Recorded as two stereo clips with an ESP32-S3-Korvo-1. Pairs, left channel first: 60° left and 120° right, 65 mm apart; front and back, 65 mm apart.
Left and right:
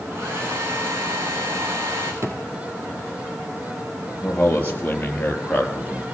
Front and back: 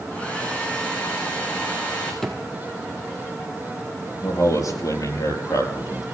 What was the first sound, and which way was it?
A hair dryer, 70° right.